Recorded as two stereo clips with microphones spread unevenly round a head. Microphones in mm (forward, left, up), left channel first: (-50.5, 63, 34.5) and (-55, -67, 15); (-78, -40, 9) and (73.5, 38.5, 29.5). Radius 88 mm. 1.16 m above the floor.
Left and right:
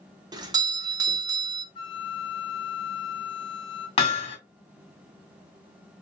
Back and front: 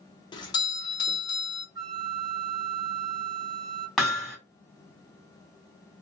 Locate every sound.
0.3 s a doorbell: 110° right, 0.8 m
1.8 s a flute: 80° left, 0.6 m
4.0 s hammering: 115° left, 1.9 m